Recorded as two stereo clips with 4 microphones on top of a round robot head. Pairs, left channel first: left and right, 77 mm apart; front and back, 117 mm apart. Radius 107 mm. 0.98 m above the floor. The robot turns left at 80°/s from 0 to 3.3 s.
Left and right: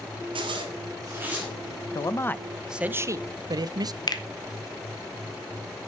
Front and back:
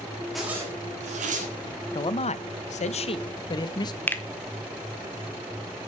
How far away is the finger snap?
About 1.1 m.